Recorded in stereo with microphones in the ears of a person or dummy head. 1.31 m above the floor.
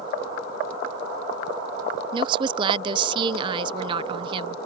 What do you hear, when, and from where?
2.1 s a woman speaking: 25° right (ahead or behind)